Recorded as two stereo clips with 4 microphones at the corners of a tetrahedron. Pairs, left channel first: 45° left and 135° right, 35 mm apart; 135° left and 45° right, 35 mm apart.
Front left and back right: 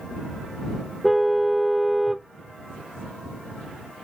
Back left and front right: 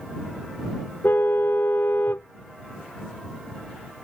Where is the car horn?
140° left.